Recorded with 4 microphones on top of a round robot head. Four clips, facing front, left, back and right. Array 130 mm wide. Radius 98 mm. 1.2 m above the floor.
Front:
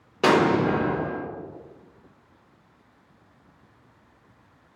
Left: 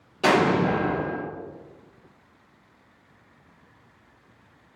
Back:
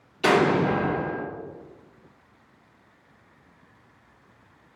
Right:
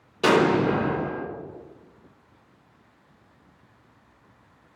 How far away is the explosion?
About 1.8 m.